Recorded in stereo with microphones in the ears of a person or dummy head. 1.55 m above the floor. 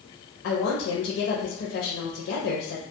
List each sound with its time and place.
0.4 s a woman speaking: 65° left (ahead or behind), 0.6 m